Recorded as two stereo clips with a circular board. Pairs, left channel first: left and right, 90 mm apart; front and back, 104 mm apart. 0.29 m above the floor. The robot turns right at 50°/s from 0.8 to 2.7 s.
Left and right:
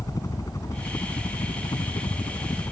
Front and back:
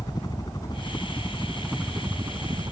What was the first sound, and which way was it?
A helicopter, 45° left.